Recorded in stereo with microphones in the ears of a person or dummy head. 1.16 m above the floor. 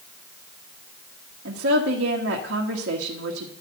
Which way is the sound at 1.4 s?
65° right (ahead or behind).